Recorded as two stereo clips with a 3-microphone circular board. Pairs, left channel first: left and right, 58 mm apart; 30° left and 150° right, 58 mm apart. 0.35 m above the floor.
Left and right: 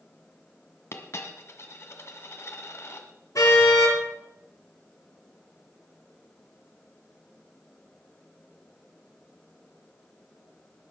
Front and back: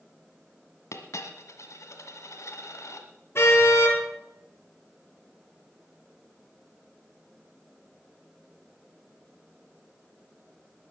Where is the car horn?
70° left, 3 m.